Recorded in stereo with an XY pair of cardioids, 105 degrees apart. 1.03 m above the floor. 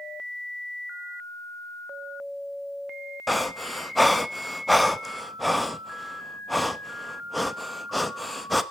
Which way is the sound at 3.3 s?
Straight ahead.